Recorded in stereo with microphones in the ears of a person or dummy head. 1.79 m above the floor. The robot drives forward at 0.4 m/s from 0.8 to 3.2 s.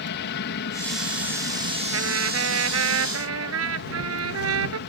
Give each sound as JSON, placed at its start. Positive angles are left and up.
{"t": 0.0, "sound": "an aircraft", "side_deg": 55}
{"t": 1.9, "sound": "a trumpet", "side_deg": -80}